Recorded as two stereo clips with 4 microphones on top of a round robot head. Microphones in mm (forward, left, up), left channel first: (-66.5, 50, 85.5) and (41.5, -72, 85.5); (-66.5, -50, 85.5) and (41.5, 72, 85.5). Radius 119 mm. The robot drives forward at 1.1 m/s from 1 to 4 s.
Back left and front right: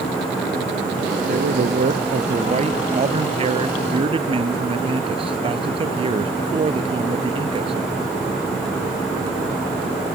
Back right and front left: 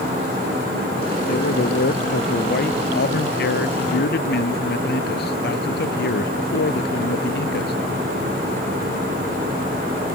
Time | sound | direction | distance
1.3 | a man speaking | 90° right | ?